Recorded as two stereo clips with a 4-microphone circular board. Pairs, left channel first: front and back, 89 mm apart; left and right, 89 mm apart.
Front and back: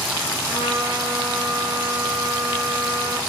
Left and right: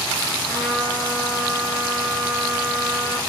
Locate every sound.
0.5 s a trumpet: 145° left, 2 m